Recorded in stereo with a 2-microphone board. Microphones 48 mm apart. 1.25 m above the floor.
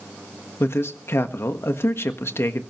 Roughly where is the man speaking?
Left.